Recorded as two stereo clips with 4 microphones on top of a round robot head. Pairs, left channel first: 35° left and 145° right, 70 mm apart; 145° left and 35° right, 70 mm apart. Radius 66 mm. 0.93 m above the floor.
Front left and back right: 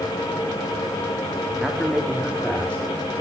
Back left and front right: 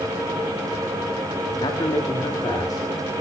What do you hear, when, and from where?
1.6 s a man speaking: 125° left, 2.0 m; by 2.8 s 105° left, 3.5 m